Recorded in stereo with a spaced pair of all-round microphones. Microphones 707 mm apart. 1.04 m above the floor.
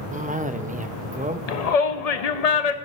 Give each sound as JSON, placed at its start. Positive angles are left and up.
{"t": 0.1, "sound": "a cough", "side_deg": -10, "distance_m": 0.6}
{"t": 1.5, "sound": "a shout", "side_deg": 60, "distance_m": 1.0}